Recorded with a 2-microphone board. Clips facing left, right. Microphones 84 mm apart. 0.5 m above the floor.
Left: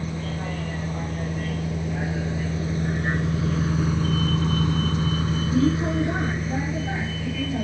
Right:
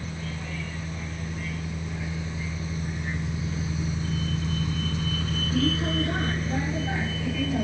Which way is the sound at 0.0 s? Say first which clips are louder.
Left 6 dB; 50° left (ahead or behind).